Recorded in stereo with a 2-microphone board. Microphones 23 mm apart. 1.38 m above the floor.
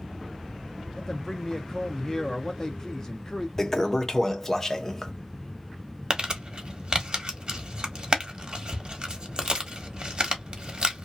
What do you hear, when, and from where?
1.0 s a man speaking: 25° left (ahead or behind), 0.6 m
3.6 s a toilet flushing: 15° left (ahead or behind), 0.6 m
6.1 s crumpling: 45° right (ahead or behind), 0.8 m